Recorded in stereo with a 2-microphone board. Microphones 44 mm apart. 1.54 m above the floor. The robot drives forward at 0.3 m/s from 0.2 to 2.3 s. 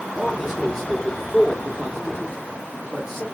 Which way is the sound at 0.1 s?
5° left (ahead or behind).